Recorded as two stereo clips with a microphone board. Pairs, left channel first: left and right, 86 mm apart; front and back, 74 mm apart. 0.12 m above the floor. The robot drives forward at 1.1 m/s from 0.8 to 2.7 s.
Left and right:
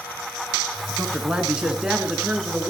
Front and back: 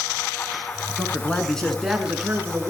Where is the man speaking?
15° right, 1.9 m; by 2.7 s 165° right, 1.9 m.